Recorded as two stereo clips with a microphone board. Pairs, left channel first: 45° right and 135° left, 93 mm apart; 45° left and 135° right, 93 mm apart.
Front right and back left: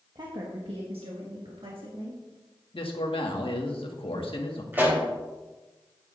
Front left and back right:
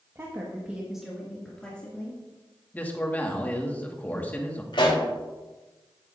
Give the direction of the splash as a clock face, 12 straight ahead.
No splash in this recording.